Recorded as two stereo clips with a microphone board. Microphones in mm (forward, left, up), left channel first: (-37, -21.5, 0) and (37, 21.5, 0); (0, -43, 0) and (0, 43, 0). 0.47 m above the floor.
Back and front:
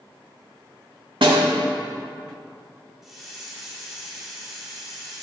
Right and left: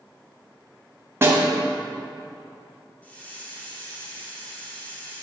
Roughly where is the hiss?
Ahead right.